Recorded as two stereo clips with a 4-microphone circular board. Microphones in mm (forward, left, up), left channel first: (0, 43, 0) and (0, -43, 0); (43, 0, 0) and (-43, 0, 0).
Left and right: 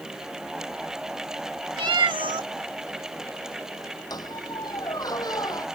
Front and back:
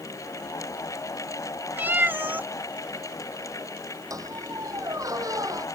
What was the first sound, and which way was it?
A cat meowing, 115° right.